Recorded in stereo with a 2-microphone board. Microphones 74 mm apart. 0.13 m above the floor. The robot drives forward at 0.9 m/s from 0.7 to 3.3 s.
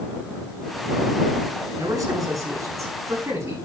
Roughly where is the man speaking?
Right.